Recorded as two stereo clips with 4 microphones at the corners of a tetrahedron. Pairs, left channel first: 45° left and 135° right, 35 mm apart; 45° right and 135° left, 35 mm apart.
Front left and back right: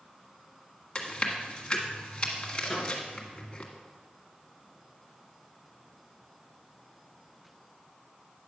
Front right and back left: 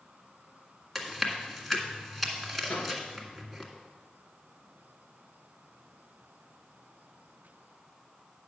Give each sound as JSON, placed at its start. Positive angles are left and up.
{"t": 0.9, "sound": "chewing", "azimuth_deg": 30, "distance_m": 1.7}
{"t": 2.6, "sound": "a microwave", "azimuth_deg": -35, "distance_m": 1.8}